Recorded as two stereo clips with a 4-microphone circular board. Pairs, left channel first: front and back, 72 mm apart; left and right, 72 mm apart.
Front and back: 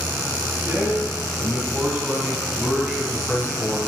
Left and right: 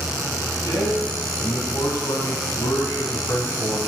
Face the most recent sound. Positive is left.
turn(degrees=90)